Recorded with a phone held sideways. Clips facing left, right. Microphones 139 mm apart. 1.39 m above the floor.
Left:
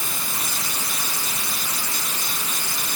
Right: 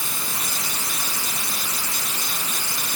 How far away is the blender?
I don't hear a blender.